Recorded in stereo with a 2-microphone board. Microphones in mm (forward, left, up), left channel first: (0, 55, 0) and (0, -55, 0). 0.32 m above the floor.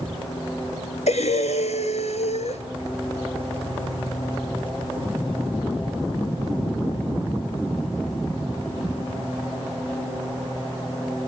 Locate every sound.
1.1 s breathing: 90° left, 1.5 m